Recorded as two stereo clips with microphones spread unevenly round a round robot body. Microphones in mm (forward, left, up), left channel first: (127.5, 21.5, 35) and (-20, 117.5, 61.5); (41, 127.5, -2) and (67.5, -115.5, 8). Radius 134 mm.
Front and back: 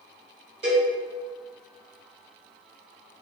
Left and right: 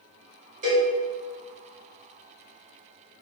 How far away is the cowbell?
About 1.8 m.